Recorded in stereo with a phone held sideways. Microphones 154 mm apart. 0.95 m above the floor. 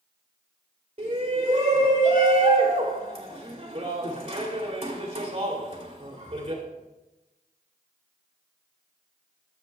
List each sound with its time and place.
1.0 s a shout: 45° right (ahead or behind), 2.5 m